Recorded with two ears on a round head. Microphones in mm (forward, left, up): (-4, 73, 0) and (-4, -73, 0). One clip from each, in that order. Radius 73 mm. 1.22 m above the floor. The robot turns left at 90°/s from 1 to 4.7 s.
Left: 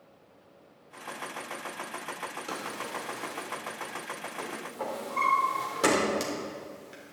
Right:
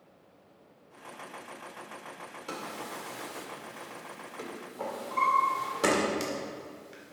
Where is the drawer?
15° left (ahead or behind), 2 m; by 7.1 s 5° left (ahead or behind), 2 m.